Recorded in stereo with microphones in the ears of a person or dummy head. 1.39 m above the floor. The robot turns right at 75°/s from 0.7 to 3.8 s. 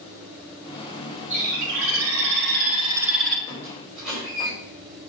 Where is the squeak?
25° left (ahead or behind), 3 m; by 4.5 s centre (ahead or behind), 3 m.